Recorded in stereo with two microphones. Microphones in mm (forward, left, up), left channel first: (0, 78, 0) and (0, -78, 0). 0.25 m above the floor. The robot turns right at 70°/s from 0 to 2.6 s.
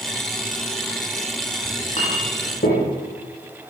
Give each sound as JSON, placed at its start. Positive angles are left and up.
{"t": 1.6, "sound": "a clink", "side_deg": 25, "distance_m": 6.5}